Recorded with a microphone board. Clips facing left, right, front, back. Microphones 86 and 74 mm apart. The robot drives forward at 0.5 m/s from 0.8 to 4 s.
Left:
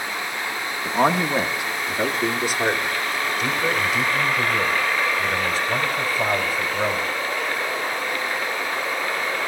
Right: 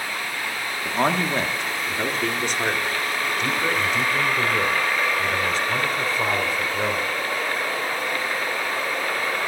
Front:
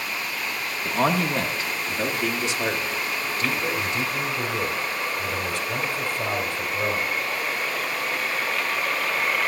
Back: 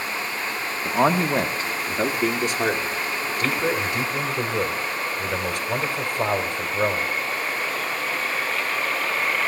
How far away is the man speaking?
About 0.9 m.